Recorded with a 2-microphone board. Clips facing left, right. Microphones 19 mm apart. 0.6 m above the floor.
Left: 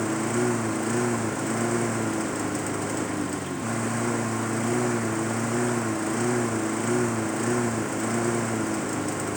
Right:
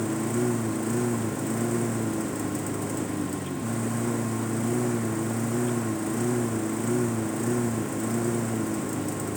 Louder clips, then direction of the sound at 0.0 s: Left 2 dB; 30° left (ahead or behind).